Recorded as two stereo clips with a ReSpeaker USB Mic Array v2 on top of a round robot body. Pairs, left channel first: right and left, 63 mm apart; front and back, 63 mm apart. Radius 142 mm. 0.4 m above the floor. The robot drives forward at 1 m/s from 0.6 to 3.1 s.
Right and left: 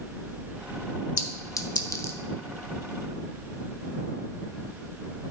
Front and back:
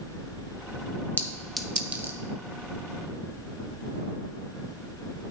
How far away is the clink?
About 1.0 m.